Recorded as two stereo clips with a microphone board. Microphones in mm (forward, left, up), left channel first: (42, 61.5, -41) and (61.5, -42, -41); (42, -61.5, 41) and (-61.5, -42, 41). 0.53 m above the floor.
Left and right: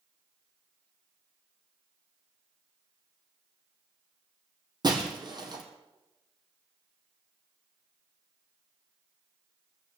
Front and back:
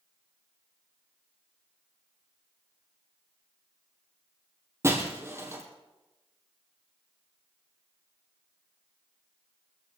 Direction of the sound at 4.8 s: 125° right.